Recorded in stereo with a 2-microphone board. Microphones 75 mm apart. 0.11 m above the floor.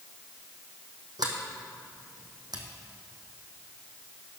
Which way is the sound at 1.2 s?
65° right (ahead or behind).